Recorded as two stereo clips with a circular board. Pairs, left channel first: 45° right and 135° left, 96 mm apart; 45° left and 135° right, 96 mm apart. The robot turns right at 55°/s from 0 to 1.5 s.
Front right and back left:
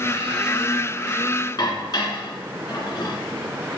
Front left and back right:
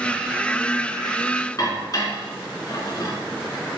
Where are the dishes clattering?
Straight ahead, 2.5 m.